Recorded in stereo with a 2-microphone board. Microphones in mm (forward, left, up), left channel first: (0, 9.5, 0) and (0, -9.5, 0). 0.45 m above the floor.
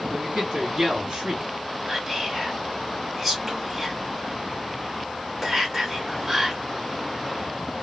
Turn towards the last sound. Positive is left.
turn(degrees=-10)  # may be behind; listen again after turning